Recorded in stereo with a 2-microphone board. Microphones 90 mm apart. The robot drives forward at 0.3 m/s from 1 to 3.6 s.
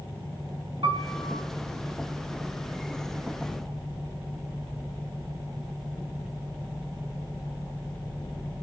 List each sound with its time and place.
0.8 s a piano: 70° right (ahead or behind), 4 m